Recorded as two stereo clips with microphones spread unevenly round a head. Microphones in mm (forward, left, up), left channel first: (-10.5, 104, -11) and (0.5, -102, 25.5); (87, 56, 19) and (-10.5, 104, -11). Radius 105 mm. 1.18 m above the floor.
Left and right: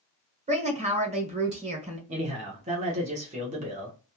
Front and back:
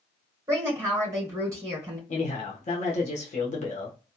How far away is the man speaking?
About 1.0 m.